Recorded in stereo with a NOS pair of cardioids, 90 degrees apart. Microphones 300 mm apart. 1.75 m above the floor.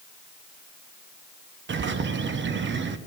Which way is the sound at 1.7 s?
35° right.